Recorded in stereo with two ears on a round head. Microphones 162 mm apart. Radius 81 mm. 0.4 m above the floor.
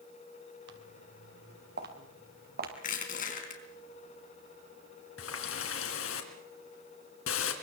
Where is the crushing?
45° left (ahead or behind), 4 m.